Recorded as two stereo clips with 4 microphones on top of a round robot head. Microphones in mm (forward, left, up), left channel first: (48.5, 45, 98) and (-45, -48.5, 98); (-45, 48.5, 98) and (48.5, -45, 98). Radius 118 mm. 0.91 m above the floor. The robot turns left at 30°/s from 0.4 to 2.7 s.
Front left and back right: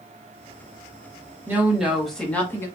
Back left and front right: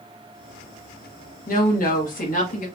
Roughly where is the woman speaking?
Behind left.